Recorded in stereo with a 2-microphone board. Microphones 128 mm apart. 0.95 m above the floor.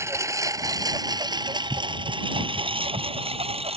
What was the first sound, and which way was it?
A lawn mower, 20° right (ahead or behind).